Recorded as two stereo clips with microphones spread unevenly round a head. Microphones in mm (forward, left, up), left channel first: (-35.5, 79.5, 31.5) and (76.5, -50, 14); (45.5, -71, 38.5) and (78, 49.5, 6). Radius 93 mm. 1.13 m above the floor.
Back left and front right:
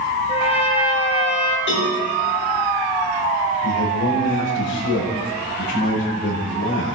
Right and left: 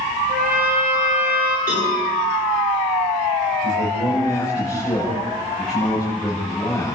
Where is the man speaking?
165° left, 7 m.